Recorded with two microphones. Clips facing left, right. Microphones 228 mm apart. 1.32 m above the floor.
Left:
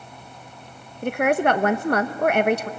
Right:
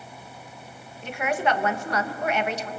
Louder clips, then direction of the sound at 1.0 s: Left 6 dB; 60° left (ahead or behind).